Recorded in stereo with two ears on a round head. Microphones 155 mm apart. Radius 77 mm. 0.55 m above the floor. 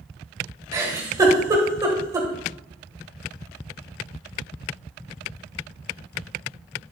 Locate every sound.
0.7 s a giggle: 20° right (ahead or behind), 3 m